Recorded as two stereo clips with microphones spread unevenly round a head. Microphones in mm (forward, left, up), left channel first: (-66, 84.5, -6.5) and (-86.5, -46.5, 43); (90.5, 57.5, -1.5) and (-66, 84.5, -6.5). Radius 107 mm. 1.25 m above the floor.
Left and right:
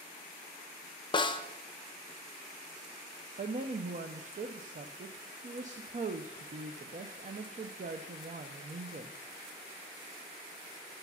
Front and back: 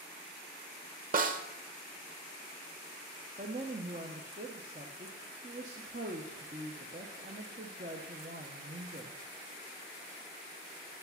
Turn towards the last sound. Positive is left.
turn(degrees=-140)